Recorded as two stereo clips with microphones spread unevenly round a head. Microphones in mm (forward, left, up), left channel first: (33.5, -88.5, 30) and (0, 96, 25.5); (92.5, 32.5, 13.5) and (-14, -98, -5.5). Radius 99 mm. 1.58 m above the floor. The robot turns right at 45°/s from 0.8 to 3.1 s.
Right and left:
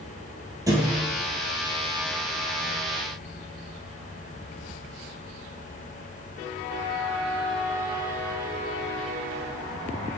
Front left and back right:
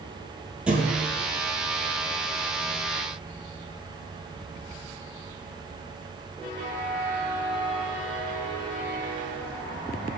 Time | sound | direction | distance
0.7 | a thud | 140° left | 1.6 m